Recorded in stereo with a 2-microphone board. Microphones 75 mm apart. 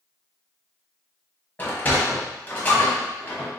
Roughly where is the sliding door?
Left.